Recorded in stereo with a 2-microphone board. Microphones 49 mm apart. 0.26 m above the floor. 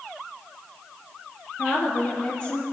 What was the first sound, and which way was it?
A woman speaking, 50° left (ahead or behind).